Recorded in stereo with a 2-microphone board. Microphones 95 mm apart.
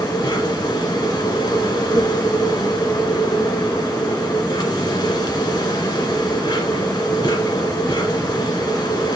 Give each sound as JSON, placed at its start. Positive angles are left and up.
{"t": 0.0, "sound": "an insect", "side_deg": 50, "distance_m": 1.8}